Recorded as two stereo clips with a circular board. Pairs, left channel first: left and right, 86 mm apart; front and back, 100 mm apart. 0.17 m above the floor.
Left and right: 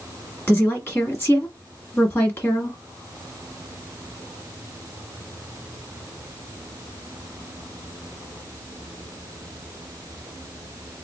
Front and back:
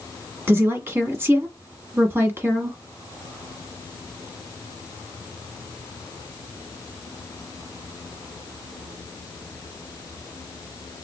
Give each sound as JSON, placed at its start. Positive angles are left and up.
{"t": 0.5, "sound": "a woman speaking", "azimuth_deg": 135, "distance_m": 1.3}